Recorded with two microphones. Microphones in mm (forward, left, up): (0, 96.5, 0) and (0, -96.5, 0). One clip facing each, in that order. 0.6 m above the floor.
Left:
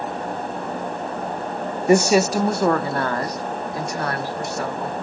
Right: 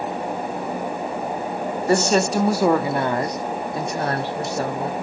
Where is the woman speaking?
15° left (ahead or behind), 0.6 m; by 4.9 s 30° right (ahead or behind), 1.6 m.